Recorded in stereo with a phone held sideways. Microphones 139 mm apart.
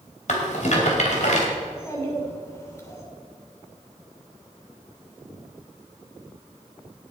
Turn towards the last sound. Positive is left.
turn(degrees=20)  # may be behind; listen again after turning